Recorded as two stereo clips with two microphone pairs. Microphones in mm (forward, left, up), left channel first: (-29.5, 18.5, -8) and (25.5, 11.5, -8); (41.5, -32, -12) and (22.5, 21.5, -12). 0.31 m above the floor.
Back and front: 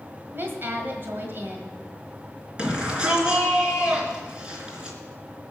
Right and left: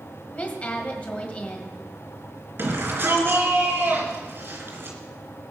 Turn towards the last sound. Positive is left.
turn(degrees=65)